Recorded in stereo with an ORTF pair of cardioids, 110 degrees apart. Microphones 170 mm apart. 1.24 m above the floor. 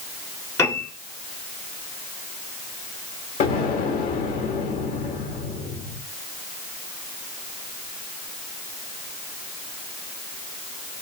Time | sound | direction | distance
0.6 | a piano | 15° left | 2 m
3.4 | an explosion | 60° left | 1.4 m